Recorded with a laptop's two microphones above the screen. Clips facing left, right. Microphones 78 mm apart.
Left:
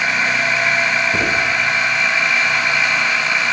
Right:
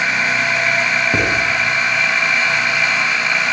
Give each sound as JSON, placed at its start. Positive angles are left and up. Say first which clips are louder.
{"t": 1.1, "sound": "writing", "louder": "right 1 dB", "side_deg": -65, "distance_m": 7.0}